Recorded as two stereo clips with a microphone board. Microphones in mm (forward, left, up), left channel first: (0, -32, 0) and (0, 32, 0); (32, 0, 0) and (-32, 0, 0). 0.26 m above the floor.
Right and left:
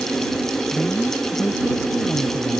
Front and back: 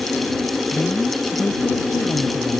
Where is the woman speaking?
45° right.